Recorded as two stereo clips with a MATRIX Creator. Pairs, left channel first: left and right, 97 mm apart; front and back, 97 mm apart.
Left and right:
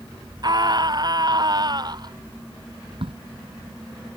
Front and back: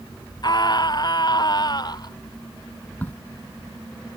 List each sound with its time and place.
0.4 s a scream: 45° right
3.0 s a crack: 70° right